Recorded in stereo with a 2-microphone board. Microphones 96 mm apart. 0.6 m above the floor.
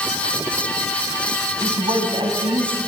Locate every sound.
1.6 s a woman speaking: 55° right (ahead or behind), 5 m; by 2.8 s 65° right (ahead or behind), 5.5 m